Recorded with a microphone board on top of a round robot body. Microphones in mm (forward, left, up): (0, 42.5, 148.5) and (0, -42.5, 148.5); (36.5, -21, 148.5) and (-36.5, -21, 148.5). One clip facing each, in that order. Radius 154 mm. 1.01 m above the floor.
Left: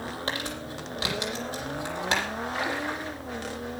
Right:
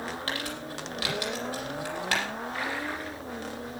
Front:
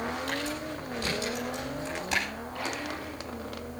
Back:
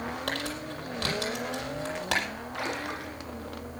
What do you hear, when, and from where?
0.3 s crumpling: 160° left, 7 m
2.5 s a splash: 160° left, 2.5 m